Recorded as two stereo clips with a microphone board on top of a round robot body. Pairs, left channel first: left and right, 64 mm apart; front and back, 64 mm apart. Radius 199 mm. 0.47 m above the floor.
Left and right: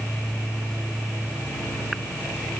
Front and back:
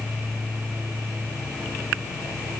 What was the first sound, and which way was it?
Only background noise.